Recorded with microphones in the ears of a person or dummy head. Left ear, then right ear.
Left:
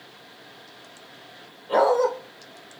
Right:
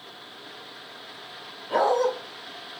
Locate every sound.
1.7 s a dog barking: 25° left (ahead or behind), 1.8 m